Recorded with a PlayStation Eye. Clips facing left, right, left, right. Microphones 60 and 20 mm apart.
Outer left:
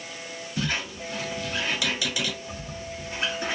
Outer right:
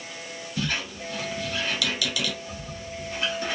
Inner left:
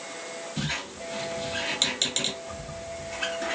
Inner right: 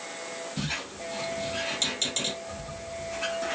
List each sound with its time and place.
0.6 s a squeak: 25° left (ahead or behind), 1.5 m